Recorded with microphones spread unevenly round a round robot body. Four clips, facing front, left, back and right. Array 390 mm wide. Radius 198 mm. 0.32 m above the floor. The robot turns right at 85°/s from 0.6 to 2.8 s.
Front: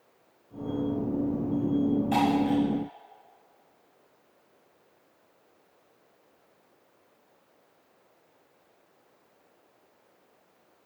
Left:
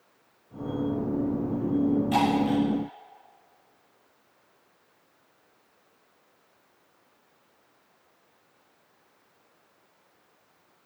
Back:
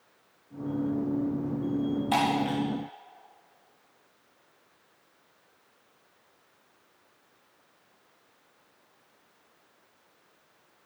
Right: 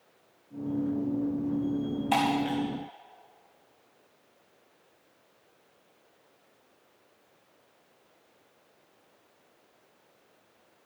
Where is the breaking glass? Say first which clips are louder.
Left 3 dB, front 1 dB; 130° right, 7 m; by 2.6 s 95° right, 7 m.